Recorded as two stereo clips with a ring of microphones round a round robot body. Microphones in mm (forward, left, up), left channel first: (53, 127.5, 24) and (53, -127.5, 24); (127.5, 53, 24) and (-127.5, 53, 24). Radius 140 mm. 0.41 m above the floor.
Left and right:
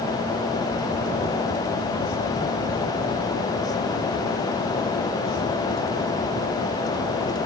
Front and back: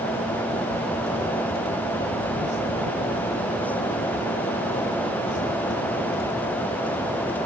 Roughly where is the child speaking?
No child speaking in this recording.